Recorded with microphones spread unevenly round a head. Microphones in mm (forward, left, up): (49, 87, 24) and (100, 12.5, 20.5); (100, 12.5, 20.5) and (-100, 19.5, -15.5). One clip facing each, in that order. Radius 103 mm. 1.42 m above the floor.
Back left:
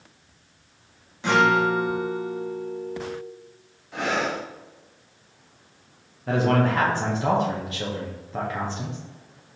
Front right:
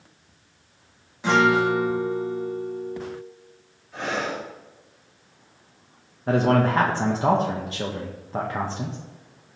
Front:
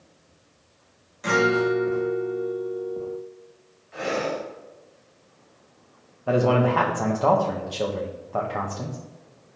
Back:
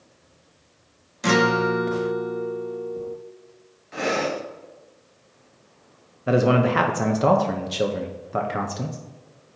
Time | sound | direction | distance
1.2 | a guitar | 145° right | 0.7 m
3.9 | breathing | 155° left | 1.0 m
6.3 | a man speaking | 120° right | 0.6 m